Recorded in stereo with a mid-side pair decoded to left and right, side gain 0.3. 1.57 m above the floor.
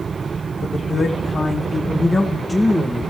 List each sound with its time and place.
0.6 s a man speaking: 60° left, 2 m; by 3.1 s 5° left, 1.3 m